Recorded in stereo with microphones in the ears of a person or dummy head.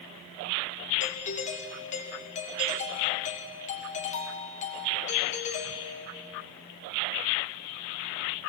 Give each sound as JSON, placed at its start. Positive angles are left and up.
{"t": 1.0, "sound": "a doorbell", "side_deg": 35, "distance_m": 2.5}